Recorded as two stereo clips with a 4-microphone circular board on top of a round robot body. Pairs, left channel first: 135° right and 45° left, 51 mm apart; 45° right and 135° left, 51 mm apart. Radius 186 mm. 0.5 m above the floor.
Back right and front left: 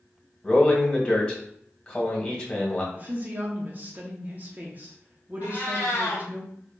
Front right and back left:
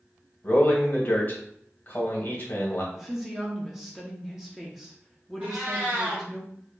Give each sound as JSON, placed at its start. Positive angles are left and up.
{"t": 0.4, "sound": "a man speaking", "azimuth_deg": -75, "distance_m": 1.4}
{"t": 2.9, "sound": "a woman speaking", "azimuth_deg": 55, "distance_m": 0.8}
{"t": 5.4, "sound": "a cat meowing", "azimuth_deg": -170, "distance_m": 0.7}